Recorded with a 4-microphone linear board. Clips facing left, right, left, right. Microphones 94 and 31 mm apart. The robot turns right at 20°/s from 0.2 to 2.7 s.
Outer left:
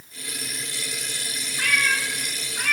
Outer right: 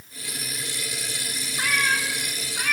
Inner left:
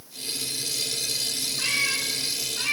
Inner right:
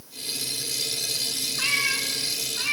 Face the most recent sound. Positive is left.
turn(degrees=0)  # may be behind; listen again after turning